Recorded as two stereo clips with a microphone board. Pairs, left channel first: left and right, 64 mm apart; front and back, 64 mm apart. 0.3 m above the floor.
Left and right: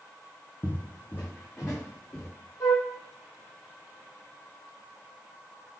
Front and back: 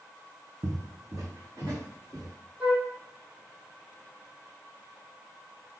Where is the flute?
115° left, 2.0 m.